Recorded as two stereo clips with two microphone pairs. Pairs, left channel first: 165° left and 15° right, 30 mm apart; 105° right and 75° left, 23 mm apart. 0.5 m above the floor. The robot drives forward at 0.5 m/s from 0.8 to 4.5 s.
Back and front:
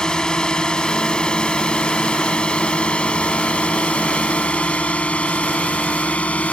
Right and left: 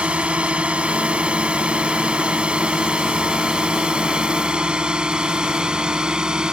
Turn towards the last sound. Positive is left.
turn(degrees=130)